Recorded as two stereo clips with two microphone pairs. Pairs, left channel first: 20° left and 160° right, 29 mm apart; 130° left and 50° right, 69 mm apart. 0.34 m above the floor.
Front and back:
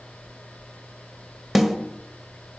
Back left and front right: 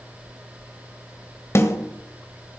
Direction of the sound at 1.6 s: 120° left.